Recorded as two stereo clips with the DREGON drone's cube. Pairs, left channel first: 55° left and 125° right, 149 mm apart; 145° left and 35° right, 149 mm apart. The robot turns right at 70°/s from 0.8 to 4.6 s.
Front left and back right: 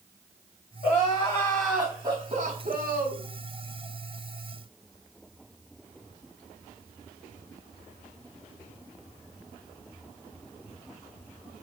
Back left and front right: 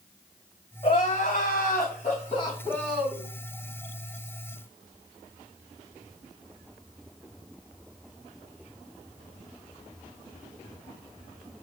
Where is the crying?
90° left, 3.5 m; by 3.2 s 105° right, 3.5 m.